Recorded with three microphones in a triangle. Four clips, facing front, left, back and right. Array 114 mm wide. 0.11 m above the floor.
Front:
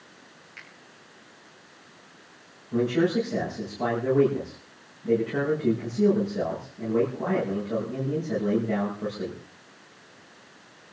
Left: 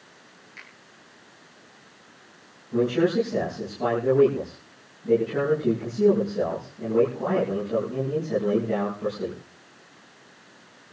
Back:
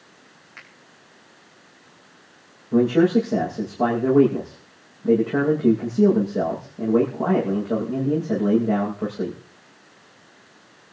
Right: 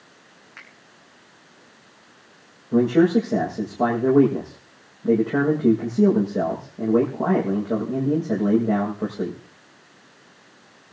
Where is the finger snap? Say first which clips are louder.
Right 2 dB, back 3 dB; 120° right, 6 m.